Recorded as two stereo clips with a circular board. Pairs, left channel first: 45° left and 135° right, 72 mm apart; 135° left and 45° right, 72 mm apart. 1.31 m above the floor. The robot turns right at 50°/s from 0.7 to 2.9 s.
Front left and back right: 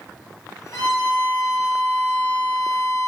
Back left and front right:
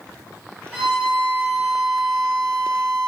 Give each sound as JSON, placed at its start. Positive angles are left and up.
{"t": 0.7, "sound": "a violin", "azimuth_deg": 30, "distance_m": 2.5}